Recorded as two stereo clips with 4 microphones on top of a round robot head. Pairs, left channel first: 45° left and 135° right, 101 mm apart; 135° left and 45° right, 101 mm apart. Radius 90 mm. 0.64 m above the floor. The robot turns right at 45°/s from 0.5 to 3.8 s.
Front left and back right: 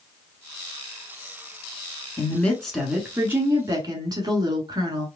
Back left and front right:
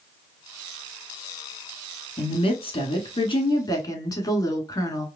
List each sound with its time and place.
2.2 s a woman speaking: 105° left, 1.8 m; by 5.1 s straight behind, 1.8 m